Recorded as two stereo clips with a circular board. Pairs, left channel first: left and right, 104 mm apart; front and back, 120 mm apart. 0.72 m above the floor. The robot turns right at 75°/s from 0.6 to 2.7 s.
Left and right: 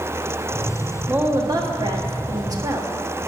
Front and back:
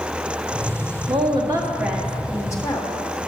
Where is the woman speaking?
160° right, 1.3 m; by 2.9 s 40° right, 1.3 m.